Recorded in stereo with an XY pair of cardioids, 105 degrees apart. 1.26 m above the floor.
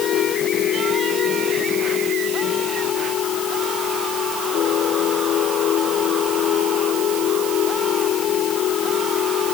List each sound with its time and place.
0.0 s a machine running: 70° left